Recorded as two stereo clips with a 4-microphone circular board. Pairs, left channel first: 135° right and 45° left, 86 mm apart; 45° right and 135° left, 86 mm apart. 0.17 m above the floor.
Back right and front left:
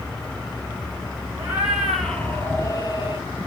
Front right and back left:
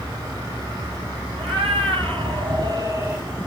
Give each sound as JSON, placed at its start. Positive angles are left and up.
{"t": 1.4, "sound": "a cat meowing", "azimuth_deg": 120, "distance_m": 2.5}